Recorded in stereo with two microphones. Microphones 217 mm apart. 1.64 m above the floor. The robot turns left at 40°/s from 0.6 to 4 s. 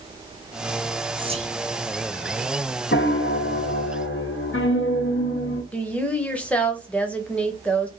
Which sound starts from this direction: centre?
A woman speaking, at 5.7 s.